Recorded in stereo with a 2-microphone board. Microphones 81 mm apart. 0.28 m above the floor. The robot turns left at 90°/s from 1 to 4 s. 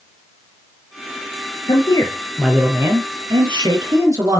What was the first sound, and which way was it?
A man speaking, 70° left.